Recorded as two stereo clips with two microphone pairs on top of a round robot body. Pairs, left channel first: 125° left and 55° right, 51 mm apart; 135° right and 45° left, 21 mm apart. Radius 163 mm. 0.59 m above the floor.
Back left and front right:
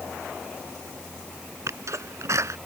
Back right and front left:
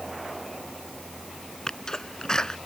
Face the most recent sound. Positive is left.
turn(degrees=-70)